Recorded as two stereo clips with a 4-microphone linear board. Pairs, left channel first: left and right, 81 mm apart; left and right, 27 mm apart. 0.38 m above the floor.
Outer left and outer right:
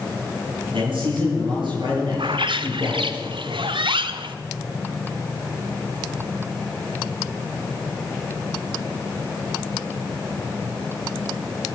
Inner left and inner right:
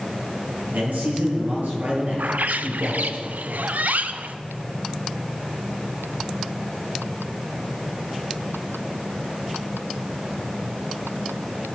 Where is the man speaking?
80° right, 7.5 m; by 3.2 s 60° right (ahead or behind), 6 m.